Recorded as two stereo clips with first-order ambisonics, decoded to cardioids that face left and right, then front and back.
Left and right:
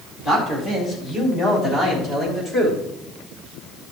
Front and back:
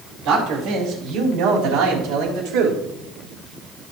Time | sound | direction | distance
0.2 | a man speaking | 150° left | 4 m